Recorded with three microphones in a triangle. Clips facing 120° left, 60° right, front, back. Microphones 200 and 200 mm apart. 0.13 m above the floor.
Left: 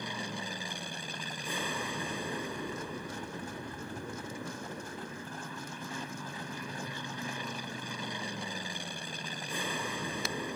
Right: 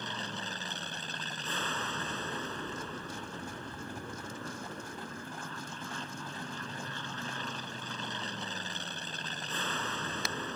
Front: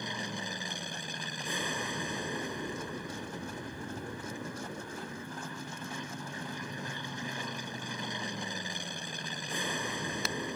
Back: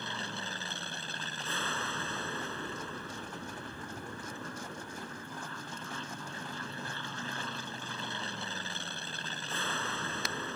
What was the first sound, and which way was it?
An aircraft, 55° left.